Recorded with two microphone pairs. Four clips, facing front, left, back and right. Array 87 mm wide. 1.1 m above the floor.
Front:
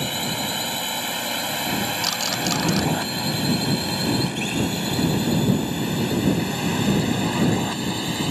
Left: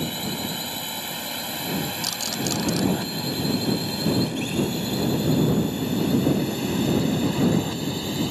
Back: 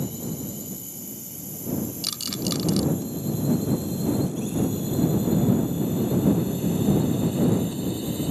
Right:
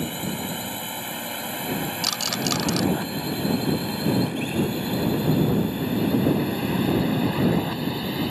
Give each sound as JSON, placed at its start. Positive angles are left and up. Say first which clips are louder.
{"t": 0.0, "sound": "a drone", "louder": "even, front 5 dB", "azimuth_deg": -15}
{"t": 2.0, "sound": "a rattle", "louder": "right 2 dB, front 5 dB", "azimuth_deg": -60}